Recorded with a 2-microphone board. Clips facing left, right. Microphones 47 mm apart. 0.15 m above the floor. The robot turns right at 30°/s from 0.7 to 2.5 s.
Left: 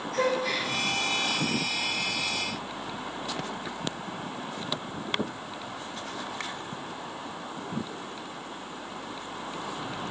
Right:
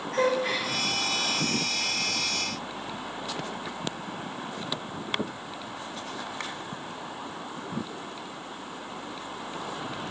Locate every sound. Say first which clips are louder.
0.1 s a gasp: right 2 dB; 35° right (ahead or behind), 9 m